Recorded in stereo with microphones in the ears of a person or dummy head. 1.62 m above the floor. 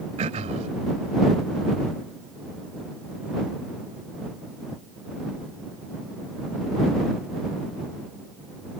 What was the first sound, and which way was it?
Throat clearing, 35° right (ahead or behind).